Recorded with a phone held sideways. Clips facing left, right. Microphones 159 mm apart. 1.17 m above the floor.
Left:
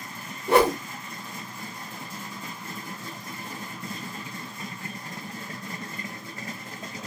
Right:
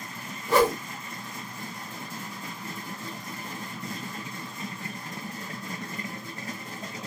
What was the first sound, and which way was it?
A whoosh, 75° left (ahead or behind).